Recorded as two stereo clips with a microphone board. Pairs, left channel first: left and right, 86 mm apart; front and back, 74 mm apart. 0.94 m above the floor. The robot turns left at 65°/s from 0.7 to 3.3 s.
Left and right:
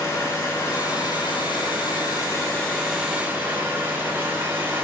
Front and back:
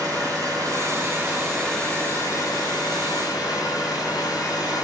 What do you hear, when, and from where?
0.0 s an engine running: 145° left, 6.5 m; by 4.8 s 25° right, 6.5 m